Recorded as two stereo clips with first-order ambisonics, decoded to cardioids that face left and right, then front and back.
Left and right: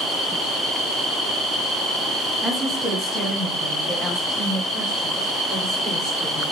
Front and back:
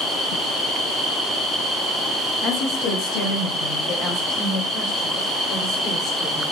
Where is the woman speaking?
5° left, 0.7 m; by 6.4 s 10° left, 2.5 m.